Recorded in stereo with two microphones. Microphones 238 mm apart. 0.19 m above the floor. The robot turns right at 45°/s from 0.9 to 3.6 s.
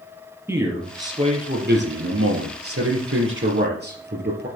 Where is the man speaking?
170° right, 3.5 m; by 4.5 s 45° right, 3.5 m.